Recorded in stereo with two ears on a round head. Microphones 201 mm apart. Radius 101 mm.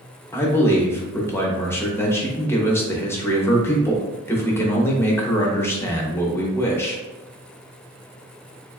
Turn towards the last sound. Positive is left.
turn(degrees=10)  # may be behind; listen again after turning